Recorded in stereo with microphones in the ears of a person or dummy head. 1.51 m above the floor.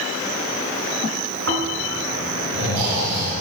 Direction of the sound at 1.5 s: 80° right.